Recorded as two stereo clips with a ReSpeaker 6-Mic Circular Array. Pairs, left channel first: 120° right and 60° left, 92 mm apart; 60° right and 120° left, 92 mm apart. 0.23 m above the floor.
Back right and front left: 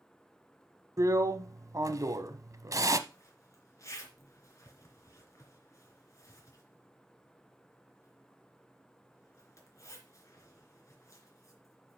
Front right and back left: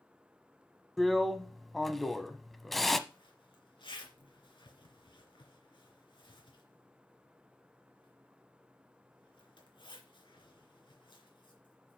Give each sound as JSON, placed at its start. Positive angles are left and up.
{"t": 1.0, "sound": "a drill", "azimuth_deg": 30, "distance_m": 0.8}
{"t": 3.1, "sound": "a zipper", "azimuth_deg": -70, "distance_m": 3.0}